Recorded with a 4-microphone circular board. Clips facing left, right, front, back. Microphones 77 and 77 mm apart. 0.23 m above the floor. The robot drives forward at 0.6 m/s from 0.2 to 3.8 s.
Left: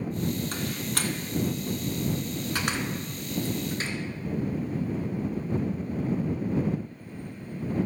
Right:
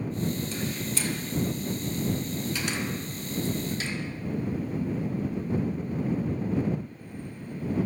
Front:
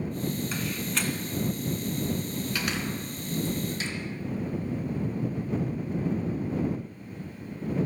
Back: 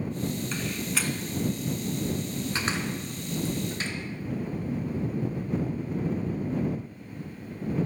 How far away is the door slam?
About 2 m.